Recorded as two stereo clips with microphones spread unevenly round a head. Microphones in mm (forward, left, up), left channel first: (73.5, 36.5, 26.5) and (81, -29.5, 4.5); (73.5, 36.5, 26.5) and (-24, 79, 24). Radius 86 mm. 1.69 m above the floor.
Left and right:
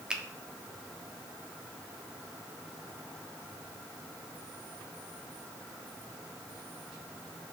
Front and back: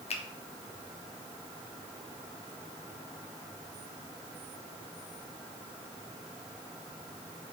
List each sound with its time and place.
0.1 s a finger snap: straight ahead, 1.2 m